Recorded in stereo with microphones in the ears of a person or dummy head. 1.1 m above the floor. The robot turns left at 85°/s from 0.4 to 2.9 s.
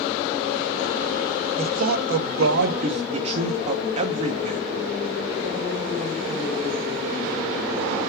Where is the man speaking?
30° right, 1.6 m; by 4.6 s 140° right, 1.6 m.